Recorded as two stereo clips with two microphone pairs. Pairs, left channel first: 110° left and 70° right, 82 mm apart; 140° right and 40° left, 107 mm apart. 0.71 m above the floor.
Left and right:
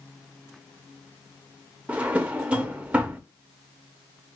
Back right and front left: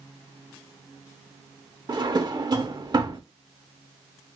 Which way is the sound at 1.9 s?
Straight ahead.